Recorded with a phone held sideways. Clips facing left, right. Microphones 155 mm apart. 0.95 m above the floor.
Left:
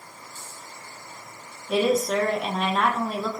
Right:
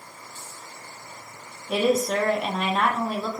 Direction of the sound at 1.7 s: 5° right (ahead or behind).